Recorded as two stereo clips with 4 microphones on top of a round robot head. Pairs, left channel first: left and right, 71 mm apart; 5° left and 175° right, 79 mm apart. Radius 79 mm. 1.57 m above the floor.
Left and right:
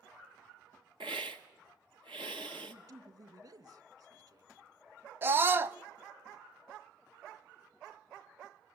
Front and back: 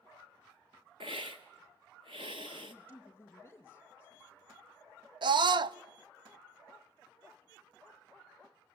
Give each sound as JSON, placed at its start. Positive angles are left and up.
{"t": 1.0, "sound": "a hiss", "azimuth_deg": -130, "distance_m": 1.1}
{"t": 2.6, "sound": "a man speaking", "azimuth_deg": -60, "distance_m": 3.0}
{"t": 5.2, "sound": "a scream", "azimuth_deg": -150, "distance_m": 0.7}